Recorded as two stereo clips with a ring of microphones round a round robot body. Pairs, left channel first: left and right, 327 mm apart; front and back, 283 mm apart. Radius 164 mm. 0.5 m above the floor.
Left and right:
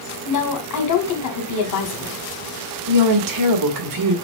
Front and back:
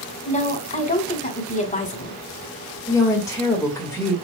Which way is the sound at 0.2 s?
65° left.